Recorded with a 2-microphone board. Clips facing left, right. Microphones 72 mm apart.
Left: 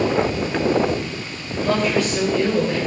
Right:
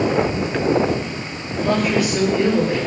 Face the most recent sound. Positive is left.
turn(degrees=-25)  # may be behind; listen again after turning